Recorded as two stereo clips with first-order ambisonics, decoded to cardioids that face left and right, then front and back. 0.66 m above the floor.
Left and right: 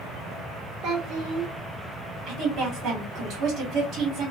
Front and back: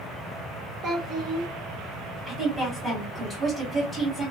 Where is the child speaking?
135° right, 0.9 m.